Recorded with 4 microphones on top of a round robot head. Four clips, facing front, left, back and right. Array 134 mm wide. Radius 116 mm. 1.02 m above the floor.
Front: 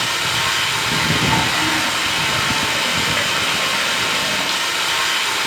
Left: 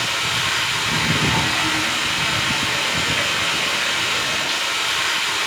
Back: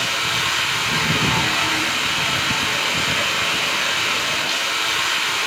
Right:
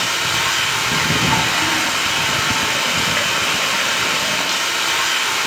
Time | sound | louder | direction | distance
0.0 | running water | right 3 dB, front 2 dB | 50° right | 1.1 m